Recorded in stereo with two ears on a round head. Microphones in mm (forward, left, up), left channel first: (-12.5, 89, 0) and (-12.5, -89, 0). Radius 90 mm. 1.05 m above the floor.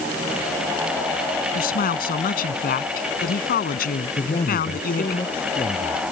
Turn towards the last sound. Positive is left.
turn(degrees=25)  # may be behind; listen again after turning